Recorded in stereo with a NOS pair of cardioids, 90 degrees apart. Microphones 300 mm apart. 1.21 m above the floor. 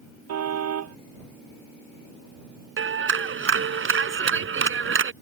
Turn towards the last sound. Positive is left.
turn(degrees=-40)